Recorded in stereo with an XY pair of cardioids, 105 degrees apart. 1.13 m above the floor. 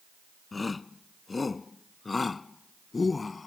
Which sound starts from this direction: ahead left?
A shout, at 0.5 s.